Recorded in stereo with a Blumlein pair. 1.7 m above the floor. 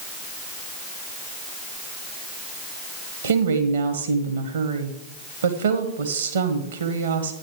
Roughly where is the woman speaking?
Ahead right.